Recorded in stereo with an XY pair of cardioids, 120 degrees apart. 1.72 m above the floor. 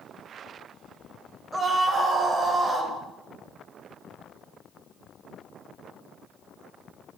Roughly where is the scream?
Ahead.